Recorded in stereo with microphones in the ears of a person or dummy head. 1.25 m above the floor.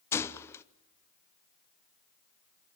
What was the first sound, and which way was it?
A gunshot, 10° left (ahead or behind).